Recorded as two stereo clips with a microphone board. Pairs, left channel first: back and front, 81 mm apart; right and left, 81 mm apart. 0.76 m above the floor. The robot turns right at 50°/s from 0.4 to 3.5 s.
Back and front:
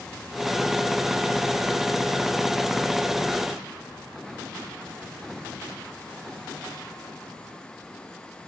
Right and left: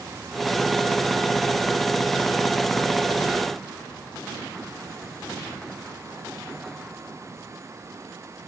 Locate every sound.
Only background noise.